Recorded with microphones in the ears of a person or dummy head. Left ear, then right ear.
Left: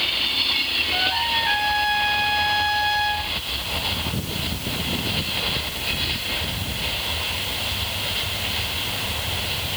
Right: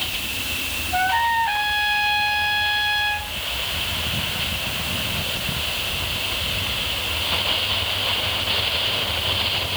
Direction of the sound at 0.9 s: 80° left.